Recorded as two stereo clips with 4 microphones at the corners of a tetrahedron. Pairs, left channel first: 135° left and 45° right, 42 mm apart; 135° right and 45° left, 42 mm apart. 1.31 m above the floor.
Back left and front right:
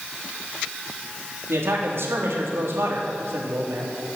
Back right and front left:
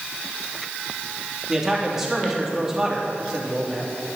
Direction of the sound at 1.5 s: 35° right.